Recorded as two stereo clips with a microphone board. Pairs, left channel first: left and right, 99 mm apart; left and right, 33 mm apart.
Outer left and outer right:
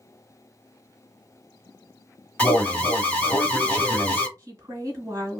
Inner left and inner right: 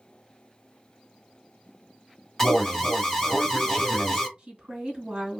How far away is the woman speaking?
About 1.7 m.